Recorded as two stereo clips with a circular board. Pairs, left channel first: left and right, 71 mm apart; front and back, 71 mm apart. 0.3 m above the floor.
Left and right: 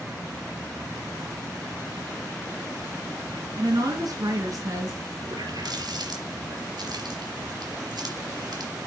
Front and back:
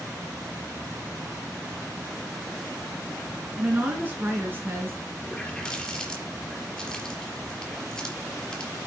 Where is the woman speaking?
110° right, 4.5 m; by 5.0 s 125° right, 4 m.